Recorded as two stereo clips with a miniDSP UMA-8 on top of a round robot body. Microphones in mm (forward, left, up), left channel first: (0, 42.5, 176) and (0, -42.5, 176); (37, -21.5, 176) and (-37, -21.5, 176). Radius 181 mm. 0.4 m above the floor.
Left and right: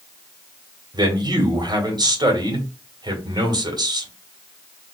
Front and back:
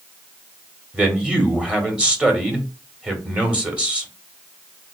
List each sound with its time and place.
0.9 s a man speaking: 105° right, 1.8 m